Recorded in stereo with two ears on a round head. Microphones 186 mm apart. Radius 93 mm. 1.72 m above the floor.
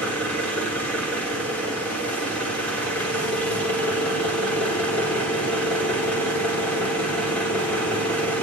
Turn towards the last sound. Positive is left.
turn(degrees=5)  # may be behind; listen again after turning